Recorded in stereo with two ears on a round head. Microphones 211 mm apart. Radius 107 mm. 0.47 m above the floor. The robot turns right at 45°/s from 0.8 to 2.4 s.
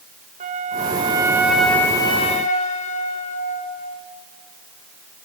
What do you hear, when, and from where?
0.4 s a flute: 35° right, 1.5 m; by 4.0 s 35° left, 1.5 m